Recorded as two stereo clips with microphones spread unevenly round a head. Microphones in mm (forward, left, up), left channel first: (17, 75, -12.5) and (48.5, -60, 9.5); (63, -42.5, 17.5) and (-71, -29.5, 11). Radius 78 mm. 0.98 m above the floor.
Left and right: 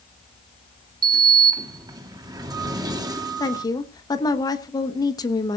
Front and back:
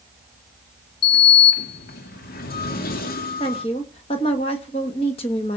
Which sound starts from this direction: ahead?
A sliding door, at 1.0 s.